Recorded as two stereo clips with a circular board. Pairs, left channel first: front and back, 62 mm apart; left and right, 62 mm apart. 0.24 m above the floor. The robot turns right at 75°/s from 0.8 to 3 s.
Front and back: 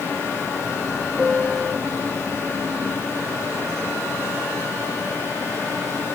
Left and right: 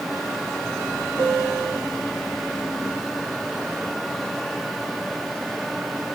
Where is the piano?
90° left, 2.5 m; by 1.8 s 140° left, 2.5 m.